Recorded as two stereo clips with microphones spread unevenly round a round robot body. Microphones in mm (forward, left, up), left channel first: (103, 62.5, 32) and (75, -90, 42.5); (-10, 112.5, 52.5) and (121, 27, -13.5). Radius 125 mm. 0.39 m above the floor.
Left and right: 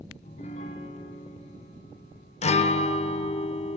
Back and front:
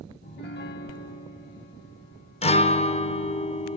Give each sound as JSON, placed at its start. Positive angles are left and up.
{"t": 0.2, "sound": "a piano", "azimuth_deg": 140, "distance_m": 0.8}
{"t": 2.4, "sound": "a guitar", "azimuth_deg": 85, "distance_m": 0.9}